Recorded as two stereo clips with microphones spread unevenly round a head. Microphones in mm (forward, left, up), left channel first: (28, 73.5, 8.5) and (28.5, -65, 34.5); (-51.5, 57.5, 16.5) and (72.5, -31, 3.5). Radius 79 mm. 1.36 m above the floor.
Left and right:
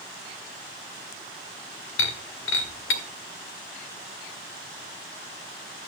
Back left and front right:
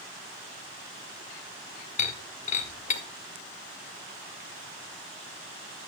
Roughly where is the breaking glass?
Left.